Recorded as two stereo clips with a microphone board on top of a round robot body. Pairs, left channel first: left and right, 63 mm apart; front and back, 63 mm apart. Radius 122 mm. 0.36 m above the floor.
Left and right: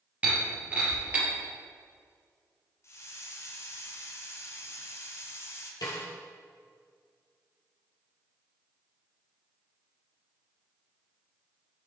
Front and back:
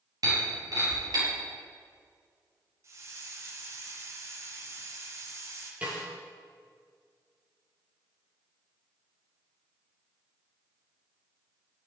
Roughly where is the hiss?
Behind left.